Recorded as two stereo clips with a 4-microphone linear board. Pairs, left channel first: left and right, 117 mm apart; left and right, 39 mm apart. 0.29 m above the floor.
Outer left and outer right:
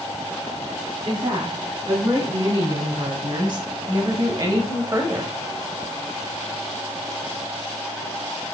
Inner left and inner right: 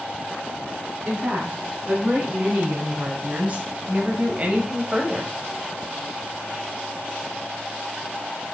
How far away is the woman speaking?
About 3.5 m.